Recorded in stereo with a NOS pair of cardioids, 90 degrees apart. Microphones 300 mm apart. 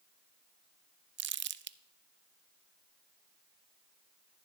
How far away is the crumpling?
About 0.5 m.